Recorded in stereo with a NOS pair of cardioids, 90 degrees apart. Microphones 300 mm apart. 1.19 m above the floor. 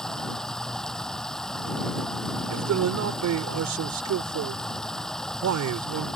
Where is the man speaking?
65° right.